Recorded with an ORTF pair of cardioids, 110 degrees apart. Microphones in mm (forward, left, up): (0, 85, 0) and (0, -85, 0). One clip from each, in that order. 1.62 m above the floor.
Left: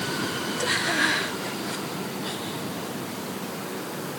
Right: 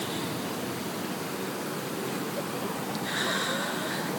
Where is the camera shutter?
No camera shutter in this recording.